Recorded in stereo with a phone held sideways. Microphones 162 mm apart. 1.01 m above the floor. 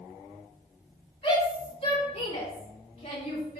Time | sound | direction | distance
1.2 | a shout | 40° left (ahead or behind) | 3.5 m